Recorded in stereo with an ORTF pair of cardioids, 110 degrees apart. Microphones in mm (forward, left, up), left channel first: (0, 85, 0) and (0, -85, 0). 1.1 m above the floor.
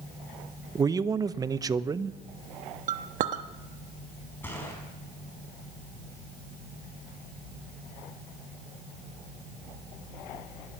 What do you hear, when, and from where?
0.8 s a man speaking: 20° right, 0.6 m
2.9 s a clink: 50° right, 1.1 m
4.4 s a gunshot: 10° left, 4.5 m